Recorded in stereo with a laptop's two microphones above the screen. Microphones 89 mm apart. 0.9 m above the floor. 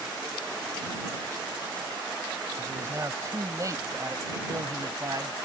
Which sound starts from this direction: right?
A man speaking, at 2.6 s.